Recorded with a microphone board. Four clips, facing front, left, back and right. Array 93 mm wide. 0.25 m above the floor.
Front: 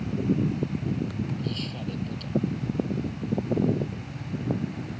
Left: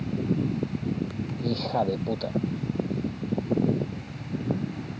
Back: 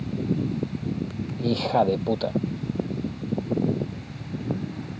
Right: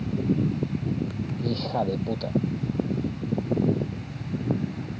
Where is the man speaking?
Straight behind.